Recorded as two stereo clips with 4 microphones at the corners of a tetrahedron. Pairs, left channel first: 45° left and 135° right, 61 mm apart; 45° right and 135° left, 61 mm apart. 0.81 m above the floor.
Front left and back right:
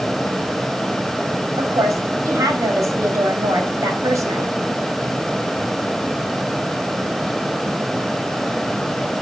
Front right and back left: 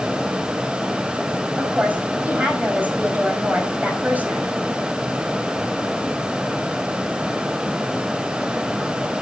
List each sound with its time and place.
1.6 s a woman speaking: 160° right, 5 m